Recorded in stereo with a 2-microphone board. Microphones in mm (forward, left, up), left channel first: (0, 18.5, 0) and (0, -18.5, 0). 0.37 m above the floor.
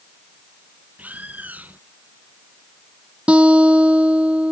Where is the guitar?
35° right (ahead or behind).